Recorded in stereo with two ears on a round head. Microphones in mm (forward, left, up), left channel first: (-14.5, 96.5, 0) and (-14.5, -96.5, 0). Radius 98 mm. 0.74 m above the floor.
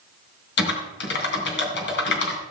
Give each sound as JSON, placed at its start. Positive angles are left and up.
{"t": 0.6, "sound": "typing on a keyboard", "side_deg": 60, "distance_m": 3.0}